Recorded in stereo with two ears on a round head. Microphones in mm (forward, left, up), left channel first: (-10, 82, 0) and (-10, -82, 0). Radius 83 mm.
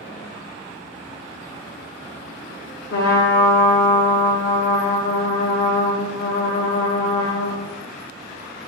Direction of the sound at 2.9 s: 80° left.